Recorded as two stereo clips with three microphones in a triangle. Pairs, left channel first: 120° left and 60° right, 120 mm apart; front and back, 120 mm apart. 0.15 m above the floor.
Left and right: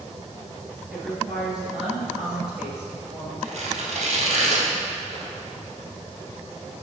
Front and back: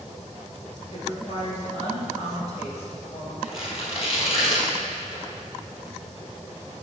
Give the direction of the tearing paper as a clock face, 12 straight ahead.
1 o'clock.